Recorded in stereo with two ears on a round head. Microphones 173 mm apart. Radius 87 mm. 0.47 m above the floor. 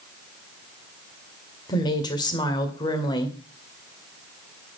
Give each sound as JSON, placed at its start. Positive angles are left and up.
{"t": 1.7, "sound": "a woman speaking", "side_deg": 25, "distance_m": 1.9}